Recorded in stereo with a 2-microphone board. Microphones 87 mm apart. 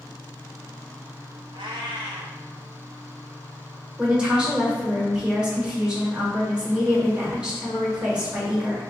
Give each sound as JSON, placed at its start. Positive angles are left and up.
{"t": 1.5, "sound": "a cat meowing", "side_deg": -75, "distance_m": 0.6}
{"t": 4.0, "sound": "a woman speaking", "side_deg": -10, "distance_m": 1.2}